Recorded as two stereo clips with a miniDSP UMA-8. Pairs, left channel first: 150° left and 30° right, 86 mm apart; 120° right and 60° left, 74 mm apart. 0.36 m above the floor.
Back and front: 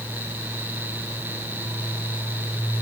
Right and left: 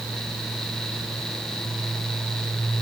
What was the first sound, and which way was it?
Only background noise.